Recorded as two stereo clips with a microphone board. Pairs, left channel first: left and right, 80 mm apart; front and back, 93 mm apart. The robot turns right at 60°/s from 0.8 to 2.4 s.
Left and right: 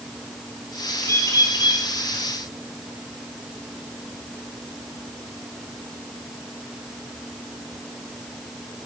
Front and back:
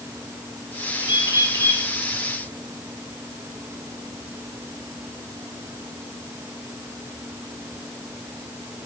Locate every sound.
1.0 s a bird: 30° left, 3.5 m; by 1.8 s 80° left, 3.5 m